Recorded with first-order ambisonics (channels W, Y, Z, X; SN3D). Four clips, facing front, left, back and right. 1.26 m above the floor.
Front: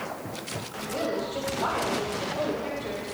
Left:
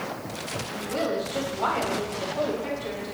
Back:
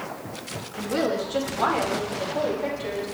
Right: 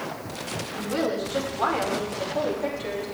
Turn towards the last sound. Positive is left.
turn(degrees=-125)